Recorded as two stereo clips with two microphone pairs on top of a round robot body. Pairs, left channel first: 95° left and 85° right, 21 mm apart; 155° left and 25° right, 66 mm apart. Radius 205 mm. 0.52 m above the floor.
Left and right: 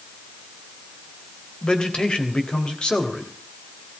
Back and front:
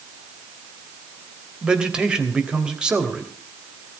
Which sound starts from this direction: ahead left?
A man speaking, at 1.6 s.